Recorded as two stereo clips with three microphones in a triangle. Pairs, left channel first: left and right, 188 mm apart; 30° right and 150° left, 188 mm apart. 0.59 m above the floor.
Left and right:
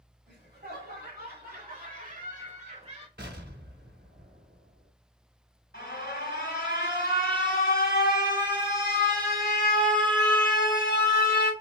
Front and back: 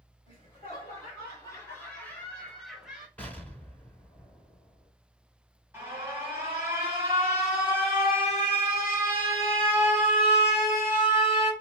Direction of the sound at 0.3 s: 90° right.